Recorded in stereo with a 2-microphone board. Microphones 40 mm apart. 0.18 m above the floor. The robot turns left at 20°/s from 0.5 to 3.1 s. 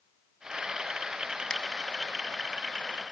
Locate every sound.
1.5 s a finger snap: 15° left (ahead or behind), 0.9 m